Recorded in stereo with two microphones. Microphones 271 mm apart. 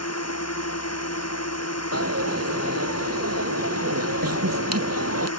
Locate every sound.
0.0 s a drone: 80° left
1.9 s a dropped coin: 80° right